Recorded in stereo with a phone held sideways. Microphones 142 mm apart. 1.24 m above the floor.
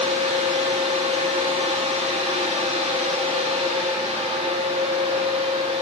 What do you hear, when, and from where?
0.0 s a fan: 55° right (ahead or behind), 1.9 m